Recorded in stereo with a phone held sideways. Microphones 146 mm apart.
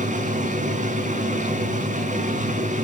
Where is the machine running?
60° right (ahead or behind), 4.5 m.